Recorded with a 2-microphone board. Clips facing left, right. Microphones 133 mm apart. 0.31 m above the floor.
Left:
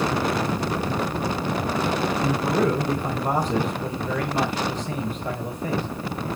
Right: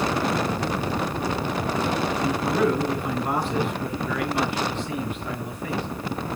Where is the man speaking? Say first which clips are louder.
Even; 40° left (ahead or behind), 1.5 m.